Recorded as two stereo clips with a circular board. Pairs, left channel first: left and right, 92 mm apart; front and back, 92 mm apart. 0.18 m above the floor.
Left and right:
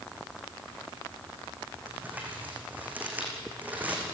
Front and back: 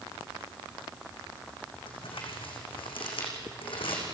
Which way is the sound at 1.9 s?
20° right.